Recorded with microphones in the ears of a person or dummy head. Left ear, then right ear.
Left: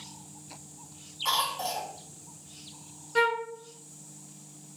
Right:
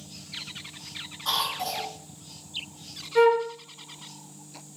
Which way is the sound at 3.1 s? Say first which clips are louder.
Right 6 dB; 5° left (ahead or behind).